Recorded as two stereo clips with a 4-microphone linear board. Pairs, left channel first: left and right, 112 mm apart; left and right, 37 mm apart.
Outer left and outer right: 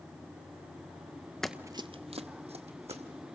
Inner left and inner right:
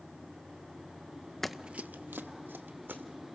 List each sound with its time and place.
1.4 s running footsteps: 5° left (ahead or behind), 0.5 m; by 3.0 s 70° right (ahead or behind), 1.9 m